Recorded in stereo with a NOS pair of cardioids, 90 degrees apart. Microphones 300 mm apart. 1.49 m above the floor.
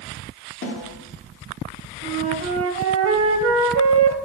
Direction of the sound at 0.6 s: 45° left.